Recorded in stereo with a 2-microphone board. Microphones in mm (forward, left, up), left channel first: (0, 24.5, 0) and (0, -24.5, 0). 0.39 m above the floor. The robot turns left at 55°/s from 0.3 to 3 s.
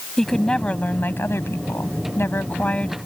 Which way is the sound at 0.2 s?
170° left.